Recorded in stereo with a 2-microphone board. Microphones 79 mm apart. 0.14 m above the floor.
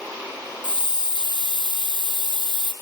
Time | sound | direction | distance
0.6 | a hiss | 75° left (ahead or behind) | 1.8 m